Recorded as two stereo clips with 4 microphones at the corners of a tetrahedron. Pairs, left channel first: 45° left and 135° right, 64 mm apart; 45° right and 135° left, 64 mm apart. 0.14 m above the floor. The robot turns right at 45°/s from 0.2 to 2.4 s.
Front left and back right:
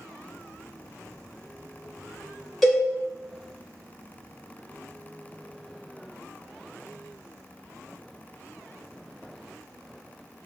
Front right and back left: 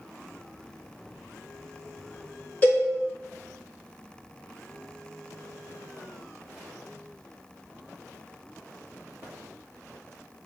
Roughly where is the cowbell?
Ahead right.